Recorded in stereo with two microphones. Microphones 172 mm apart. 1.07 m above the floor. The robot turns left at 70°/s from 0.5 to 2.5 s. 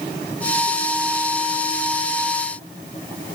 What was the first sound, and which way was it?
Only background noise.